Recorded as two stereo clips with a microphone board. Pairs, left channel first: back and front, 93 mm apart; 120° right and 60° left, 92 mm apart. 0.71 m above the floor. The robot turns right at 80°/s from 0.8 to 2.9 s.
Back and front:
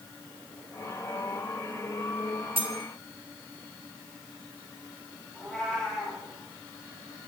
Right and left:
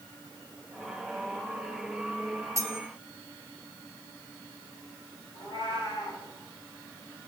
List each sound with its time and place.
2.6 s cutlery clinking: 10° left, 1.1 m; by 2.8 s 25° left, 1.1 m
5.3 s a cat meowing: 95° right, 4.5 m